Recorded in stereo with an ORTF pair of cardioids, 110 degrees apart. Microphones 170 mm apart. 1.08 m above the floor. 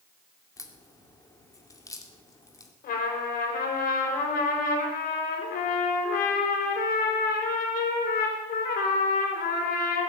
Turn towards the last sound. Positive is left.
turn(degrees=65)